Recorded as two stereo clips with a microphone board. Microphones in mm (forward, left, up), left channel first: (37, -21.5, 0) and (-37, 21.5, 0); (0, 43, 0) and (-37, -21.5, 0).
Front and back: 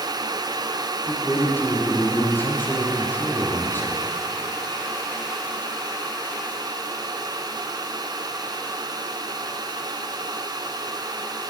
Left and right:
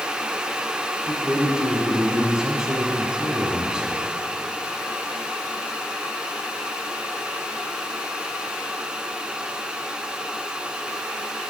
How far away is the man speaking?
About 1.1 m.